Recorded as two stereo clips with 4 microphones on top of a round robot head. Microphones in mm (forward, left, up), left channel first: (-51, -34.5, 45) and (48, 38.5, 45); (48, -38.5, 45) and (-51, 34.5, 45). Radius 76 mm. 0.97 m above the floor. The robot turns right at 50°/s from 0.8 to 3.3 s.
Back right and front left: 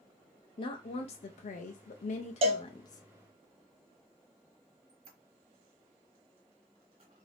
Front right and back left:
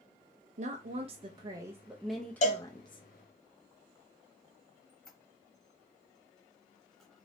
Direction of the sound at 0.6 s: 170° left.